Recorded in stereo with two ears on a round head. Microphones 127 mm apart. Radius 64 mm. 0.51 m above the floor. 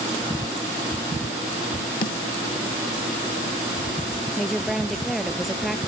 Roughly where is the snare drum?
Left.